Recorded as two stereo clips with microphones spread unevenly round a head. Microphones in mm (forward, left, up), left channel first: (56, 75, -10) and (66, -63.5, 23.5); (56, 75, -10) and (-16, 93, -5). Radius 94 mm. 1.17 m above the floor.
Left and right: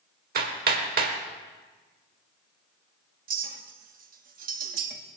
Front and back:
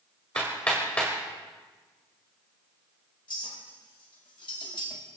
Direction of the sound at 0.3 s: 95° right.